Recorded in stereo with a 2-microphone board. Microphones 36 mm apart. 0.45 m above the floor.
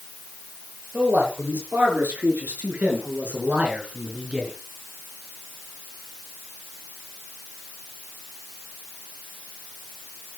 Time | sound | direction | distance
0.9 | a man speaking | 75° right (ahead or behind) | 8 m